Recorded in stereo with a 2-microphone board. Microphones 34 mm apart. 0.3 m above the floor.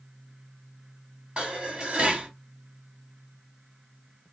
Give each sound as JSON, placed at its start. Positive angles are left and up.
{"t": 1.4, "sound": "dishes clattering", "side_deg": -30, "distance_m": 1.6}